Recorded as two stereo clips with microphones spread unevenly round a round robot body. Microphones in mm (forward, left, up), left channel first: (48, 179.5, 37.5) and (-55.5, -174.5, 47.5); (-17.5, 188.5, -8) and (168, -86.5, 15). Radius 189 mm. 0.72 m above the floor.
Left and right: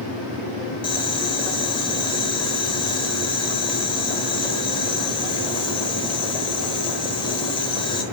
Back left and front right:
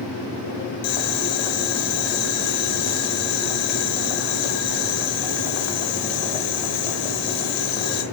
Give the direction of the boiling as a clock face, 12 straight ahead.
7 o'clock.